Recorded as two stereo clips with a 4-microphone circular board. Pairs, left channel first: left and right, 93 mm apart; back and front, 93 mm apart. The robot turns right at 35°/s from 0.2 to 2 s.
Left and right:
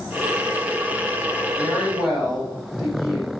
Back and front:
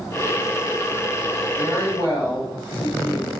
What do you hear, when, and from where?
1.6 s a woman speaking: 110° left, 3 m; by 3.3 s 125° left, 3 m